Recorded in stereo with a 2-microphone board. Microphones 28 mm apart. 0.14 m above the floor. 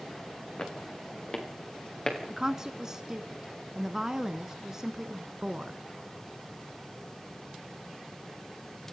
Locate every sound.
0.6 s footsteps: 35° left (ahead or behind), 4.5 m; by 2.2 s 30° left (ahead or behind), 6 m
2.3 s a woman speaking: 20° right (ahead or behind), 1.2 m